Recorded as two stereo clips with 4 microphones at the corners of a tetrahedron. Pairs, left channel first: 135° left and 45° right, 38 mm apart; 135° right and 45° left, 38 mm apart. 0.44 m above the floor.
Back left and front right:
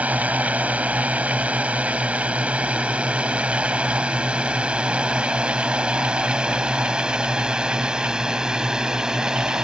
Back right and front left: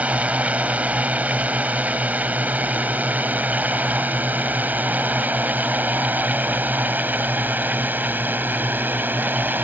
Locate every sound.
0.0 s a drone: straight ahead; by 9.7 s 30° left